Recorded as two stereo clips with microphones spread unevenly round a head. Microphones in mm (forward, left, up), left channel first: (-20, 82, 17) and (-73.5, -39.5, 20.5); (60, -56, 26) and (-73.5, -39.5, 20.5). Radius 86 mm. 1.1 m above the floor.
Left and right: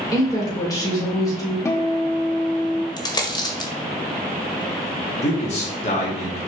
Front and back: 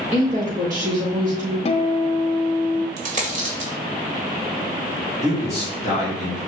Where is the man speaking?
100° left, 2.5 m.